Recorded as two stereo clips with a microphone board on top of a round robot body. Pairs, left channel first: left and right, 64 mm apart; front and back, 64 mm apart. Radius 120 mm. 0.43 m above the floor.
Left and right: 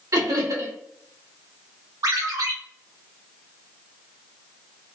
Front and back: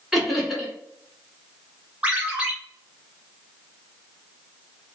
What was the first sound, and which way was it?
Laughter, 95° right.